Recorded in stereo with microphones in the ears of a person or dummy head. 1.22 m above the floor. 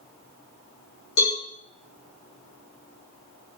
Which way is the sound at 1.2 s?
55° left (ahead or behind).